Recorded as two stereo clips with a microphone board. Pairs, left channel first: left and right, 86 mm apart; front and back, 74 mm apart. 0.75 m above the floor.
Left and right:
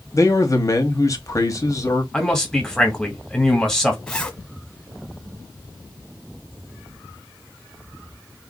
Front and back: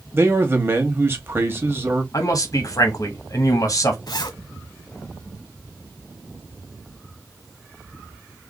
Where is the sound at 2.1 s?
10° left, 1.2 m.